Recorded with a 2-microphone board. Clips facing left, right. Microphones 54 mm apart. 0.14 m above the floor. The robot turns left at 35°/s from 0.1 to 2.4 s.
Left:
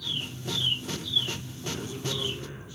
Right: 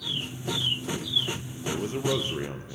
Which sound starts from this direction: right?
A man speaking, at 1.6 s.